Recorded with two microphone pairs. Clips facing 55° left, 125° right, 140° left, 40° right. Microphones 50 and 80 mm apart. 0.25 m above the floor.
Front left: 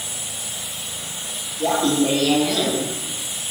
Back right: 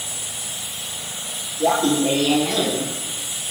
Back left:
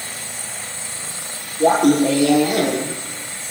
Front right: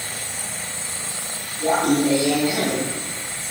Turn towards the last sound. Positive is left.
turn(degrees=140)